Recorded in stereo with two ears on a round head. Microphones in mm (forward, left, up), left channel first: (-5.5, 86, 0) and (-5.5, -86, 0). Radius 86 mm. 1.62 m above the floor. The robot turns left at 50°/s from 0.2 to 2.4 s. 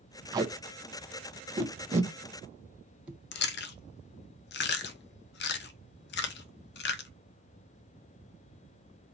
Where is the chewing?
60° left (ahead or behind), 0.6 m.